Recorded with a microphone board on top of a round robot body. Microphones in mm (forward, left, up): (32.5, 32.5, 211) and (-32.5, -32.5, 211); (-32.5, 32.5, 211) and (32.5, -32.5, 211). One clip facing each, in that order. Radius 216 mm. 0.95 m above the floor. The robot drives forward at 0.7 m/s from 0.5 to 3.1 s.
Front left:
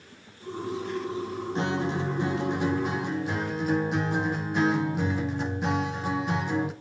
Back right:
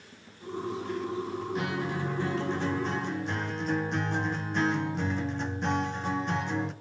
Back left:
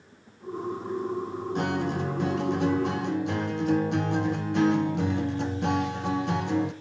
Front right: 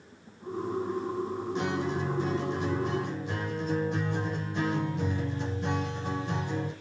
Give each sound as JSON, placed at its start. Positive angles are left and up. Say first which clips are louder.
{"t": 1.6, "sound": "a guitar", "louder": "front left 6 dB, back left 3 dB", "azimuth_deg": 105, "distance_m": 2.0}